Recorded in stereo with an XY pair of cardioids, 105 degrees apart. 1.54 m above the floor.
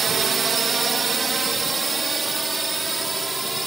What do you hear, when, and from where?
0.0 s a drone: 45° right; by 3.7 s 20° right